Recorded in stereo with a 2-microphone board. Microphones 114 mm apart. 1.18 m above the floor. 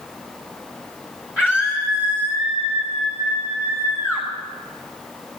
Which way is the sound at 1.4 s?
10° right (ahead or behind).